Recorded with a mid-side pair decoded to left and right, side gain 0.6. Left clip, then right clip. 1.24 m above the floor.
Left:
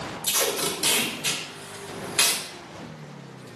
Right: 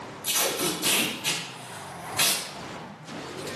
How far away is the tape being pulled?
About 1.1 m.